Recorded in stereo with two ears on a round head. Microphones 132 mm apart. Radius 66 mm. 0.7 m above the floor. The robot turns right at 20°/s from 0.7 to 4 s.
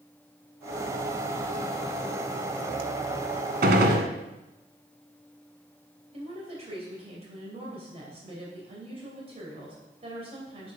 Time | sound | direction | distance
3.6 | a gunshot | 70° right (ahead or behind) | 1.4 m
6.1 | a woman speaking | 45° right (ahead or behind) | 3 m